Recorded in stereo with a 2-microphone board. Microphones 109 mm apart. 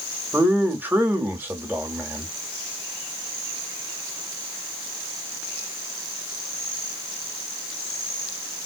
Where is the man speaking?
20° right (ahead or behind), 1.3 m.